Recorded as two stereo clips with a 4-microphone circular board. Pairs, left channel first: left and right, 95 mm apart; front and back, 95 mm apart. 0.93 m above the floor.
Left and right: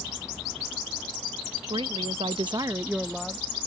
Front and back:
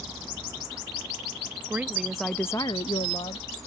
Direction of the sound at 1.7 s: 110° right.